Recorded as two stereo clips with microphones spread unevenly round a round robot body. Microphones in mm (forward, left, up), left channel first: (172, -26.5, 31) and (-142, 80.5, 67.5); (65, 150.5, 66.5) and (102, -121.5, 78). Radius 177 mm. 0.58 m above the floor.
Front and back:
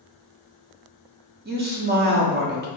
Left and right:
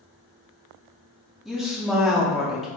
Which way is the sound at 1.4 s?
175° right.